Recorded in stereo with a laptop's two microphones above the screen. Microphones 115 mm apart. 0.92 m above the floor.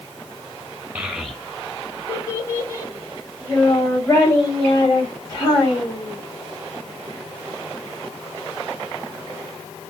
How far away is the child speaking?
About 0.6 m.